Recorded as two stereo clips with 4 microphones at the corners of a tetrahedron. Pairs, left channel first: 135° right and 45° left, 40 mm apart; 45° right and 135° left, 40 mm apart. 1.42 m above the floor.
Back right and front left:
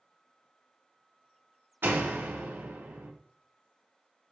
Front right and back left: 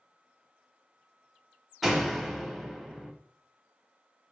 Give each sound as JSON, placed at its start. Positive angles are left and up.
{"t": 1.8, "sound": "a door slam", "azimuth_deg": 50, "distance_m": 0.7}